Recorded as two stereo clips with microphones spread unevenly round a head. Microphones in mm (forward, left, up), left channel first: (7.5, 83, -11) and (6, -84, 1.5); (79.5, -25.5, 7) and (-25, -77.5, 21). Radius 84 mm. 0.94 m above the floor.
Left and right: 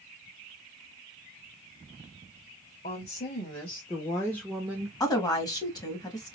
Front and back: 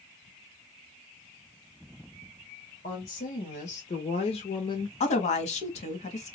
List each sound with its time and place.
2.8 s a woman speaking: 45° left, 1.8 m; by 4.9 s 20° right, 0.8 m
5.0 s a woman speaking: 25° left, 1.4 m